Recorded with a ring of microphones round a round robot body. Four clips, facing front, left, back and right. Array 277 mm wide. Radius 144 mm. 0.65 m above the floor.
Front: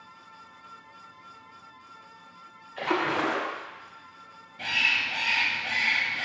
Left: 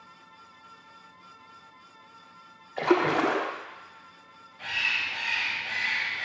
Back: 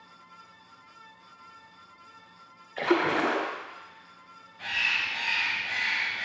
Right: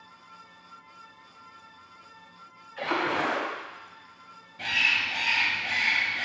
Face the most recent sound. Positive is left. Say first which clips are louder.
# right 3 dB, front 2 dB
turn(degrees=-45)